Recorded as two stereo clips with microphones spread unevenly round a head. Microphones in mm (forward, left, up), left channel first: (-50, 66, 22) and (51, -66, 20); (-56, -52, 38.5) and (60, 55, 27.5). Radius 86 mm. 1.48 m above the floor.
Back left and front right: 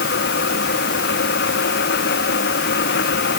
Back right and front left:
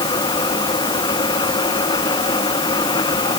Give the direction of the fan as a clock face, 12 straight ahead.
7 o'clock.